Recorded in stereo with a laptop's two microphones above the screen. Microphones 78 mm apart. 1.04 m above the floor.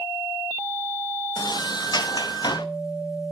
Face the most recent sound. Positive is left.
turn(degrees=65)  # may be behind; listen again after turning